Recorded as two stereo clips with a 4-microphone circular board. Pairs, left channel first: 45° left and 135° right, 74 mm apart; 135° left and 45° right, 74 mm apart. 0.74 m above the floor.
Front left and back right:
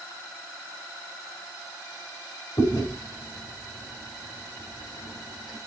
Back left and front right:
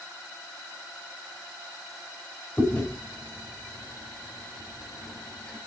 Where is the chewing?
60° left, 4.5 m.